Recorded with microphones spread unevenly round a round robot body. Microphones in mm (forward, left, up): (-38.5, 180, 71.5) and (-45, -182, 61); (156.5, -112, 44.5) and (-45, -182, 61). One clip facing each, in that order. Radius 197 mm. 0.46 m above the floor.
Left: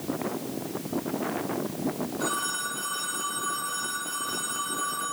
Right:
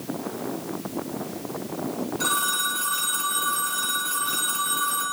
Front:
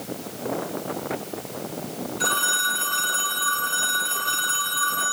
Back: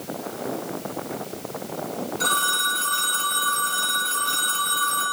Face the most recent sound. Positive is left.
turn(degrees=-125)